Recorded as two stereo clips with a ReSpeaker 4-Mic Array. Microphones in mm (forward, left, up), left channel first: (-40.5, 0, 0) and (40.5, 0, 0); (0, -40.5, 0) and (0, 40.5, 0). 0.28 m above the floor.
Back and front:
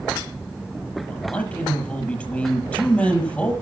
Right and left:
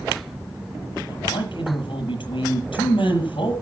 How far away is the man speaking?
About 8 m.